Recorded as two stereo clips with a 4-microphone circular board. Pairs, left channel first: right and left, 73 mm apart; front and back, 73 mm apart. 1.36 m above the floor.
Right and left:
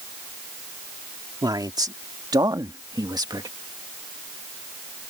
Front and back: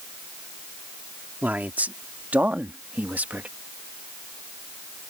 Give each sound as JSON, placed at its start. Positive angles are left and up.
{"t": 1.4, "sound": "a man speaking", "azimuth_deg": 115}